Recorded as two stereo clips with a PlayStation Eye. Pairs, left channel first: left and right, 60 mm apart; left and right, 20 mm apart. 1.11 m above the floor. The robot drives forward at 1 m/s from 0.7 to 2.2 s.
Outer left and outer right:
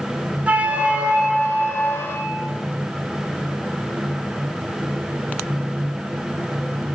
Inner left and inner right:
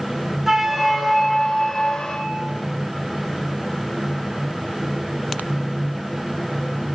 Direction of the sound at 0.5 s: 20° right (ahead or behind).